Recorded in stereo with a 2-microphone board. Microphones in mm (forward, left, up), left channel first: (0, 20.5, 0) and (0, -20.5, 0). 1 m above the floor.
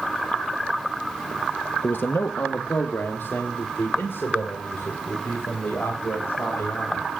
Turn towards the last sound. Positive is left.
turn(degrees=60)  # may be behind; listen again after turning